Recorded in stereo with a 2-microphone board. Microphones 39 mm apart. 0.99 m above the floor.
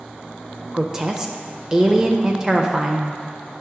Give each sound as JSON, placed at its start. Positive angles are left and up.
{"t": 0.7, "sound": "a woman speaking", "side_deg": -15, "distance_m": 0.5}